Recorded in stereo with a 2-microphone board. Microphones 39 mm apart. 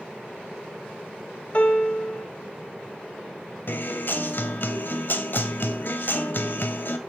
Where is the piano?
30° left (ahead or behind), 0.7 m.